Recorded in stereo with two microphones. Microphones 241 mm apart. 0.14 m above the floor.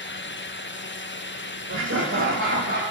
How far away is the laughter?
About 5.5 m.